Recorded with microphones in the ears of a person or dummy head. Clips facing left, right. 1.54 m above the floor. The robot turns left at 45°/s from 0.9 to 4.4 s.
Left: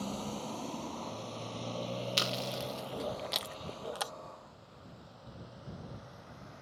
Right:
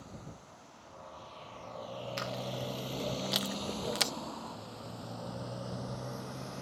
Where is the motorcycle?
65° left (ahead or behind); by 6.6 s 55° right (ahead or behind).